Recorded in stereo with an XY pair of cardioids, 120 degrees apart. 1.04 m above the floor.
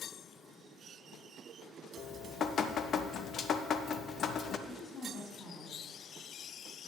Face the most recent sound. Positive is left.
turn(degrees=40)